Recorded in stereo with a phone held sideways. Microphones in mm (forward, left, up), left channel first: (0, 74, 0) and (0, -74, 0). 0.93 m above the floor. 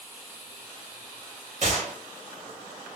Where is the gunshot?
50° right (ahead or behind), 0.9 m.